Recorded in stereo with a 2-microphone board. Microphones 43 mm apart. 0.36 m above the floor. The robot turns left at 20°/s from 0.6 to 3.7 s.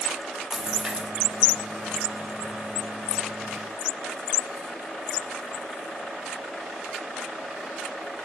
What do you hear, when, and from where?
0.5 s a splash: 10° right (ahead or behind), 2.5 m; by 1.1 s 20° right (ahead or behind), 2.5 m